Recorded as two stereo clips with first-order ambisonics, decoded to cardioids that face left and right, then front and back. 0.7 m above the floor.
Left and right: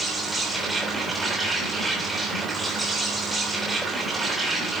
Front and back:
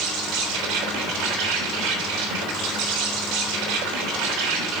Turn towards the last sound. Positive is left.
turn(degrees=-175)